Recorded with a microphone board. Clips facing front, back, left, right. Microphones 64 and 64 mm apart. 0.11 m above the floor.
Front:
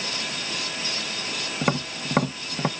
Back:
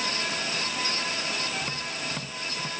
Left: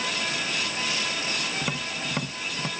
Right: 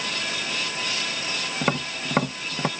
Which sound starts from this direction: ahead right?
Tapping, at 1.6 s.